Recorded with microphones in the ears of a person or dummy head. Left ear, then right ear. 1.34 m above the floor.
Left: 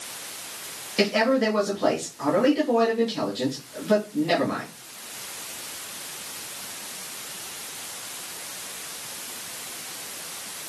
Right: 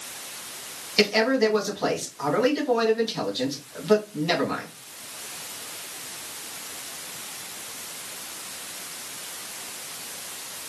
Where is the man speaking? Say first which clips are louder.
Right 1 dB; 35° right (ahead or behind), 1.7 m.